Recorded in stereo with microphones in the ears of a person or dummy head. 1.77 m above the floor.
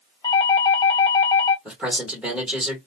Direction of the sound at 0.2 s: 20° left (ahead or behind).